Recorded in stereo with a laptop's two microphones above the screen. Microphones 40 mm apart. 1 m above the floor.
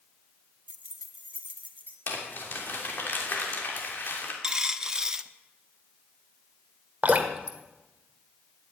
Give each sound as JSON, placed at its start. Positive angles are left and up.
{"t": 0.7, "sound": "keys jangling", "side_deg": -40, "distance_m": 0.9}
{"t": 2.1, "sound": "crumpling", "side_deg": 55, "distance_m": 3.0}
{"t": 4.4, "sound": "a dropped coin", "side_deg": -20, "distance_m": 0.8}
{"t": 7.0, "sound": "dripping", "side_deg": -40, "distance_m": 1.3}